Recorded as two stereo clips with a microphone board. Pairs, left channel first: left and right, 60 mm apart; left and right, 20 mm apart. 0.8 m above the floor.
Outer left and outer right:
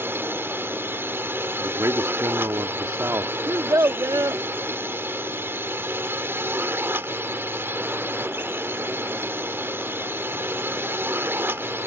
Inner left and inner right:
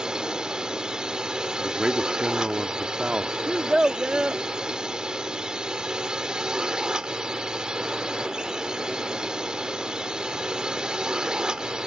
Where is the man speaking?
65° right (ahead or behind).